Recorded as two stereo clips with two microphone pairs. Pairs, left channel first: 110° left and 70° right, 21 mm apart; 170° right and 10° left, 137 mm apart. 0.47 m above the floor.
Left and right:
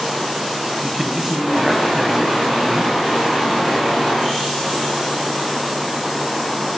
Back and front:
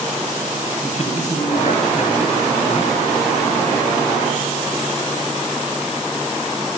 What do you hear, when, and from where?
0.8 s a man speaking: 145° right, 4 m